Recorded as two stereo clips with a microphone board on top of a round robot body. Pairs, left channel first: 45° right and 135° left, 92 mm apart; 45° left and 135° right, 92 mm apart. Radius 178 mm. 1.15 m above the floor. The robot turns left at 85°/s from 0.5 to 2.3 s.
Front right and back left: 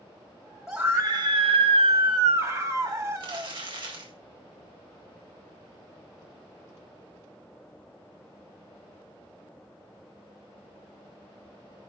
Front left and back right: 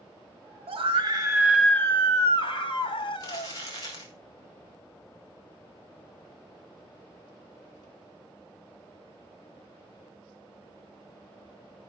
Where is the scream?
140° right, 2 m; by 3.5 s 80° left, 2 m.